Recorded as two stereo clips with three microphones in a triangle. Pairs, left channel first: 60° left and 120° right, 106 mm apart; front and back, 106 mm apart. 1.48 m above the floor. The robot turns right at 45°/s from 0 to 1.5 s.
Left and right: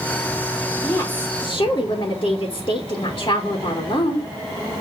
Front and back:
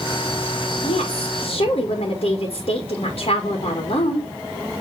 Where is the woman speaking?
15° right, 2 m; by 4.2 s 15° left, 2 m.